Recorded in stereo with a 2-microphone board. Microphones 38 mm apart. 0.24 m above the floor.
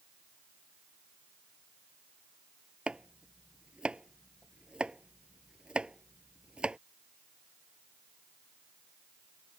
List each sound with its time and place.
2.9 s chopping: 25° right (ahead or behind)